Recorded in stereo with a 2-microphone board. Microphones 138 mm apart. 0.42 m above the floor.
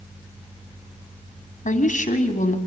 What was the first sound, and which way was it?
A woman speaking, 70° left (ahead or behind).